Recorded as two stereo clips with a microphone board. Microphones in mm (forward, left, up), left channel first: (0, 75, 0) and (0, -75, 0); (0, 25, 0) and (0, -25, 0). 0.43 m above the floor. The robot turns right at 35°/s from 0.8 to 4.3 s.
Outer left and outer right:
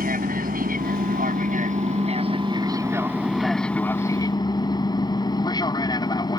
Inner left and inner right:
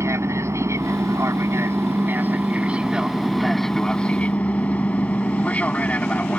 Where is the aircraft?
95° right; by 6.4 s 30° left.